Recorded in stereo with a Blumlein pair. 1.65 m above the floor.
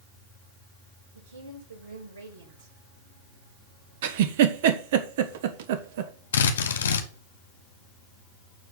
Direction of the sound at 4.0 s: 55° right.